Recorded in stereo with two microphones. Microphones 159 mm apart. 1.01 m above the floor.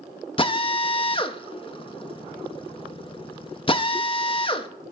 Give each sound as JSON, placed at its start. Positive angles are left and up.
{"t": 0.4, "sound": "a drill", "side_deg": 30, "distance_m": 0.6}